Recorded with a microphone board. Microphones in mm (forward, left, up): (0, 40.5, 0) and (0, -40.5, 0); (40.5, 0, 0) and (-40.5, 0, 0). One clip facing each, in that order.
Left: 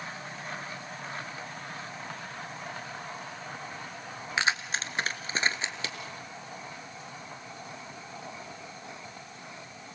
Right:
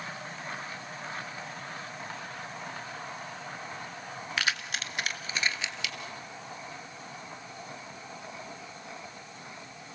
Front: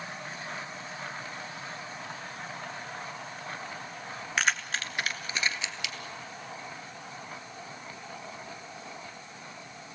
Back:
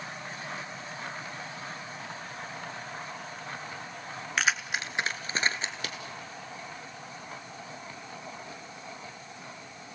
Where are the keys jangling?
85° left, 1.1 m; by 6.0 s 140° left, 2 m.